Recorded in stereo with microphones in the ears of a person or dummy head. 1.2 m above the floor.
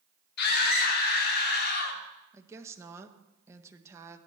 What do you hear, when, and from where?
0.4 s a scream: 65° left (ahead or behind), 2.5 m; by 2.0 s 60° left (ahead or behind), 3.5 m
2.3 s a woman speaking: 10° right (ahead or behind), 1.1 m